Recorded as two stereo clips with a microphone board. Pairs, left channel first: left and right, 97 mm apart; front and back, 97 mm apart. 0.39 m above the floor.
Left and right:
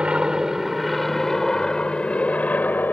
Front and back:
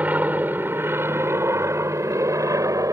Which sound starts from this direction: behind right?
An aircraft, at 0.0 s.